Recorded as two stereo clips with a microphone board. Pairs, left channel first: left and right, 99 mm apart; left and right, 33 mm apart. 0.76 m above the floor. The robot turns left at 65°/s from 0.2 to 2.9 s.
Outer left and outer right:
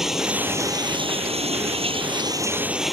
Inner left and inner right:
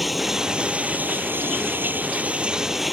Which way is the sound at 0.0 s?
5° right.